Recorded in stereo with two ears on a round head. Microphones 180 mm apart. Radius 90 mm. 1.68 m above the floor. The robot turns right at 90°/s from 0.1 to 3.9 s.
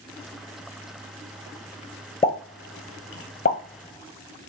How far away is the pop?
About 0.9 m.